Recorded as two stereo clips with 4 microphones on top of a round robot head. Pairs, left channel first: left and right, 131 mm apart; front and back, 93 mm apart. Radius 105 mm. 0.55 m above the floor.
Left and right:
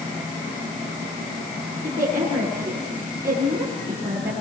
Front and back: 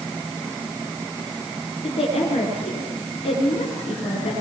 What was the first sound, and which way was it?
A woman speaking, 20° right.